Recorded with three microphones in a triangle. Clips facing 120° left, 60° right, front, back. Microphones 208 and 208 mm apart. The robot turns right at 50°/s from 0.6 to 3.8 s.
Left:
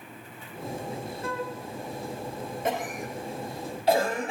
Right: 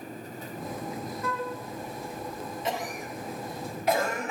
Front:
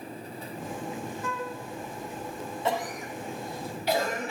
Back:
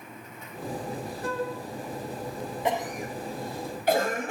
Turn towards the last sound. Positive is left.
turn(degrees=170)